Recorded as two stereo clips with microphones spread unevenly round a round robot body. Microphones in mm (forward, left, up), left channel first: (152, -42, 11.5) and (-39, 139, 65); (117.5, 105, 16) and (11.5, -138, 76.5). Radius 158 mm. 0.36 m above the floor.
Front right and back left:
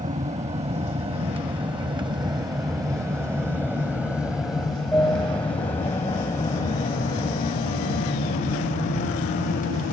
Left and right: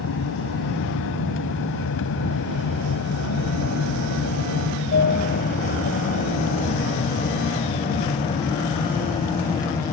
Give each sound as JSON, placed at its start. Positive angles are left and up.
{"t": 0.0, "sound": "an aircraft", "azimuth_deg": 70}